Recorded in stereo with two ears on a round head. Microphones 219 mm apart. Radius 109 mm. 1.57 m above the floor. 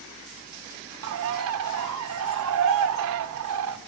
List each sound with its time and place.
1.0 s a bird: 60° right (ahead or behind), 0.6 m